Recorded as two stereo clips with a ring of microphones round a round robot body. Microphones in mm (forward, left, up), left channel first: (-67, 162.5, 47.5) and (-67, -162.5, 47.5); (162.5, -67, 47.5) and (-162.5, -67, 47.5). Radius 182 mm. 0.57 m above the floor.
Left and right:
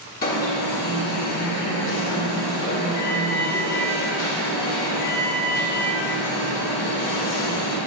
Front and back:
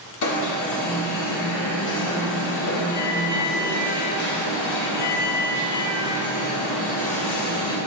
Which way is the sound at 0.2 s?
30° left.